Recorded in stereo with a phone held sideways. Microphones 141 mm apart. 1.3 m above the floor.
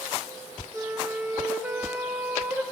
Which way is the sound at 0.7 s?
15° right (ahead or behind).